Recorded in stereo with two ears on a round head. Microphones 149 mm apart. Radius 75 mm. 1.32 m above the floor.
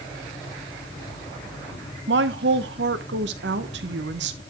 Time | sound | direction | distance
2.1 | a woman speaking | 70° right (ahead or behind) | 0.9 m